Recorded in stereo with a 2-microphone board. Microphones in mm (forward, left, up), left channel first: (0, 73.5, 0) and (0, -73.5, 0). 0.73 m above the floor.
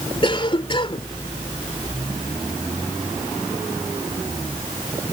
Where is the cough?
35° left (ahead or behind).